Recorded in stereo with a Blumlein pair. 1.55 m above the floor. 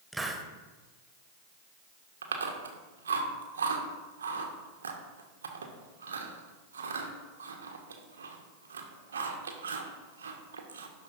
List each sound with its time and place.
0.1 s a hiss: 5° right, 1.1 m
2.2 s chewing: 70° right, 1.3 m